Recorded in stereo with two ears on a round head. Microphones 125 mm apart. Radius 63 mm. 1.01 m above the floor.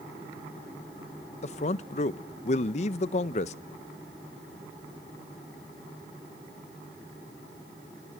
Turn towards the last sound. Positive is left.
turn(degrees=50)  # may be behind; listen again after turning